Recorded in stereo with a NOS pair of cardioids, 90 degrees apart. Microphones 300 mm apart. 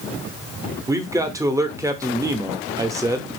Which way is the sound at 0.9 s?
10° right.